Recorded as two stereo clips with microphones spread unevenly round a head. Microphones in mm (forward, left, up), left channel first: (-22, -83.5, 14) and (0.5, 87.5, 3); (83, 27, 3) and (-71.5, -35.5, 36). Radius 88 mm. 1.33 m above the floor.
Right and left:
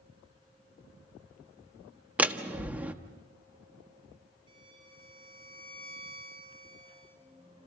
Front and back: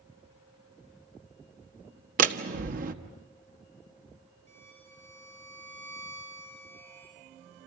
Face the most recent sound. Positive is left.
turn(degrees=145)